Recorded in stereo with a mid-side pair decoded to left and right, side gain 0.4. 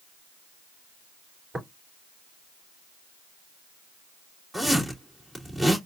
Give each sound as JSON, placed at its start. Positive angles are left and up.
{"t": 1.5, "sound": "tapping", "azimuth_deg": -25, "distance_m": 3.0}
{"t": 4.5, "sound": "a zipper", "azimuth_deg": -15, "distance_m": 3.0}